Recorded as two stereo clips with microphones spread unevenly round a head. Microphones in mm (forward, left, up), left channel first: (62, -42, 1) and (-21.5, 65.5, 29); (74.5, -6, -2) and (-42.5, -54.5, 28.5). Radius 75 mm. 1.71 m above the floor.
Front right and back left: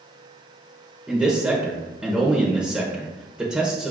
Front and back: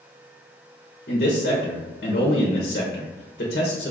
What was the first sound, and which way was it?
A man speaking, 55° left.